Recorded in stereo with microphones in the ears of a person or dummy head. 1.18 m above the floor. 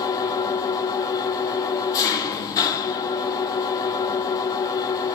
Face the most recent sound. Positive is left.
turn(degrees=20)  # may be behind; listen again after turning